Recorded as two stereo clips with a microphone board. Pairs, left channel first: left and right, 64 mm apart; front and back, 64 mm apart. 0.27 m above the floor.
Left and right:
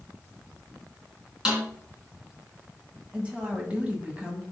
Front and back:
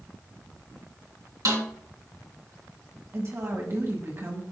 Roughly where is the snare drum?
Behind.